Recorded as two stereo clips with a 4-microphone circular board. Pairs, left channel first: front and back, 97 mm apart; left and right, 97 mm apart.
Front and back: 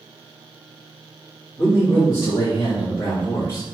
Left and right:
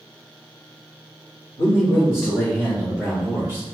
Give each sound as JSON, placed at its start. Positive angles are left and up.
{"t": 1.6, "sound": "a man speaking", "azimuth_deg": 60, "distance_m": 1.7}